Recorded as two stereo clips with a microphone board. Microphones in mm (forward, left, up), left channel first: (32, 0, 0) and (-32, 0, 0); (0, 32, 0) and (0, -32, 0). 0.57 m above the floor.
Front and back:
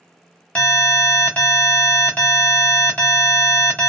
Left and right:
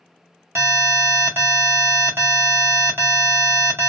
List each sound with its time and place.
0.6 s an alarm: 60° right, 1.4 m